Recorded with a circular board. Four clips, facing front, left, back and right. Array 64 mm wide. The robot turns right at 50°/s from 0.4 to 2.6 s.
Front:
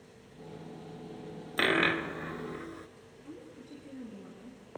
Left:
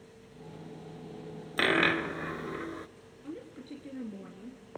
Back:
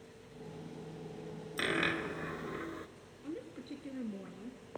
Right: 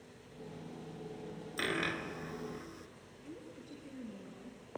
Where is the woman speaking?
130° left, 2.0 m.